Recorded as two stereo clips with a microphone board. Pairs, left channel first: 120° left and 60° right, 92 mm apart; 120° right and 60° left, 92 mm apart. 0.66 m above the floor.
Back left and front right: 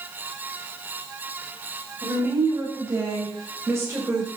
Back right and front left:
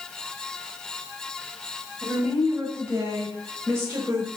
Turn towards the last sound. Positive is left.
turn(degrees=0)